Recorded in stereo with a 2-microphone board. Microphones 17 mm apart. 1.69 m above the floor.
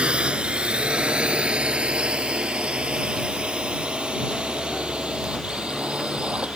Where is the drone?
70° right (ahead or behind).